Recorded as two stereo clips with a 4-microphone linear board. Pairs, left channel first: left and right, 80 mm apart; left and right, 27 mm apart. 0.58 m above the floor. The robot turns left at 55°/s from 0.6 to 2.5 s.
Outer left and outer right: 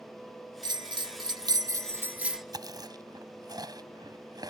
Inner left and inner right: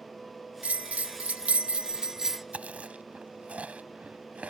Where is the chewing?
60° right (ahead or behind).